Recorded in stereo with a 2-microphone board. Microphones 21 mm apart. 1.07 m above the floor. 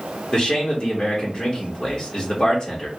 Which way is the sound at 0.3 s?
25° left (ahead or behind).